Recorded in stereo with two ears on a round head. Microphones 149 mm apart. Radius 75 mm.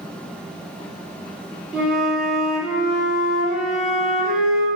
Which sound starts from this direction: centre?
A flute, at 1.7 s.